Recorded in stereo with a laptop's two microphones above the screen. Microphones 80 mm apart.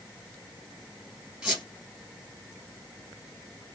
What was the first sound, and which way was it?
A squeak, 15° right (ahead or behind).